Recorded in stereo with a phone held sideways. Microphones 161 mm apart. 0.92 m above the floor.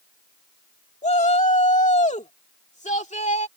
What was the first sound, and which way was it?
A shout, 45° left (ahead or behind).